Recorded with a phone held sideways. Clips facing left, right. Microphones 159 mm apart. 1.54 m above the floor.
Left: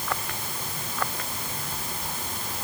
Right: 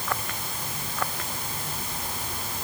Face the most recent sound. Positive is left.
No sound to turn to.